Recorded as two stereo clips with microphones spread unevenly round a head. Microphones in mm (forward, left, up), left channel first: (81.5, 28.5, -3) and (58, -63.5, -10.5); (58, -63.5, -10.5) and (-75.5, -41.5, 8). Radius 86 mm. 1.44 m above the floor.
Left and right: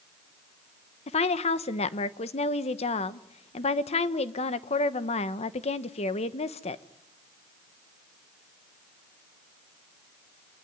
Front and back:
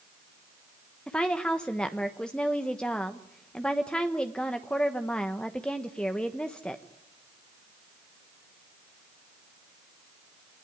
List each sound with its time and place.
1.1 s a woman speaking: 80° left, 1.1 m